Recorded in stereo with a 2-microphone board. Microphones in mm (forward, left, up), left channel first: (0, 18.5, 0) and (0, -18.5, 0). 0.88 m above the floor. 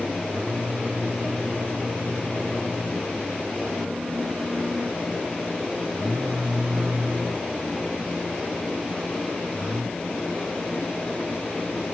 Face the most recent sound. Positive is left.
turn(degrees=-55)  # may be behind; listen again after turning